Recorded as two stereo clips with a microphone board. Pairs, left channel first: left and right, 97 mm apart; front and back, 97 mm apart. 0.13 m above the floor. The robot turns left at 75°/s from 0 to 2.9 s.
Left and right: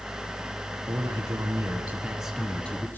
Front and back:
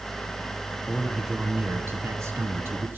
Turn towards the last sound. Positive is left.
turn(degrees=135)